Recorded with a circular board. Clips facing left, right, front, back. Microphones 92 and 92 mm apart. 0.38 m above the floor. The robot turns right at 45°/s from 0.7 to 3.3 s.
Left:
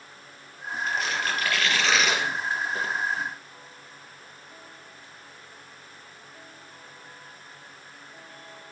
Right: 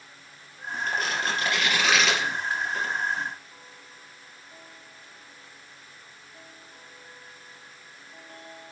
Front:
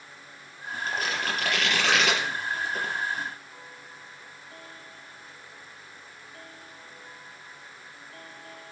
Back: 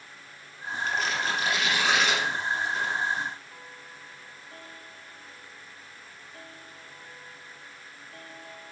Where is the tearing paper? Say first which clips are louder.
Even, back 1 dB; 50° right, 4.5 m; by 2.9 s 45° left, 4.5 m.